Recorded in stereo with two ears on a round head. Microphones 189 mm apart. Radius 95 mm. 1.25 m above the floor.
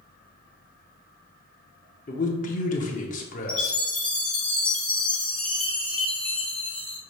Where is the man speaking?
40° left (ahead or behind), 0.8 m.